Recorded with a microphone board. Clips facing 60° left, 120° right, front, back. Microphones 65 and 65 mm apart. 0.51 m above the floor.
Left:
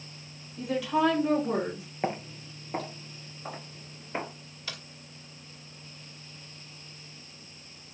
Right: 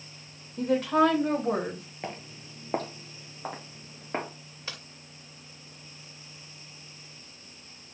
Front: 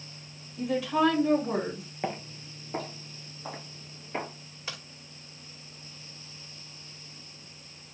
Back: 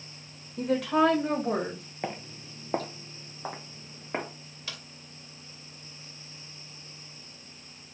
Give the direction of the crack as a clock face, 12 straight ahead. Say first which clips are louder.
Even, front 2 dB; 2 o'clock.